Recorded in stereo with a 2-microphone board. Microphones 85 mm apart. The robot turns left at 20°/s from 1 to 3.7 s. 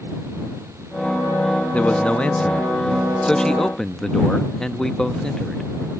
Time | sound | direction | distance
1.7 | a man speaking | 15° left (ahead or behind) | ?